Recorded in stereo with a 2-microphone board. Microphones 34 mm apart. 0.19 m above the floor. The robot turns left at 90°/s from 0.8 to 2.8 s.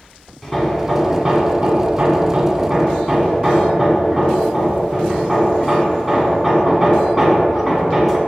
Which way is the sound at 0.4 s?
5° right (ahead or behind).